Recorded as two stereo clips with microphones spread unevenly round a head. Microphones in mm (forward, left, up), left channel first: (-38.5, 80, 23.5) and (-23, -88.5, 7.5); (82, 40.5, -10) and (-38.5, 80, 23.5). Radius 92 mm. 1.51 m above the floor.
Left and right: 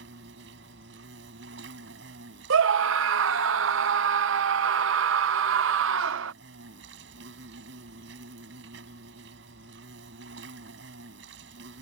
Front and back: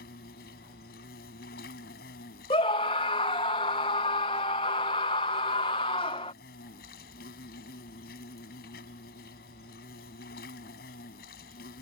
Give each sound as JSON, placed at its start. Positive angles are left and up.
{"t": 0.0, "sound": "an insect", "azimuth_deg": -50}
{"t": 2.5, "sound": "a scream", "azimuth_deg": -85}